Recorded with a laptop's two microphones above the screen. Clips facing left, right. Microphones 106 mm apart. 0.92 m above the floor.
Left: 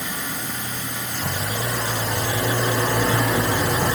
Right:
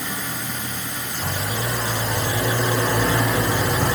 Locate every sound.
Only background noise.